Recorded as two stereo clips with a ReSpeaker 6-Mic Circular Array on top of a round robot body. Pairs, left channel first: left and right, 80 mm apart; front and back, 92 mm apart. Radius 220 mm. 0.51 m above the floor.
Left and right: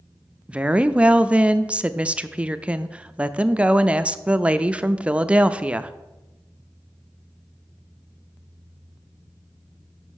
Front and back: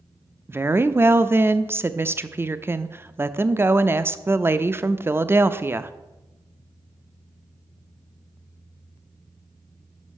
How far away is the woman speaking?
About 0.6 m.